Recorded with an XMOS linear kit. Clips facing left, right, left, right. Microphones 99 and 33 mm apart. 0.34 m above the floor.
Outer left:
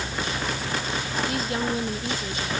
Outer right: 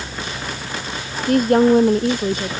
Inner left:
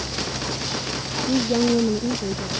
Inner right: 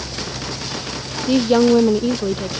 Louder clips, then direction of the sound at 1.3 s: Outer right 18 dB, inner right 7 dB; 50° right (ahead or behind).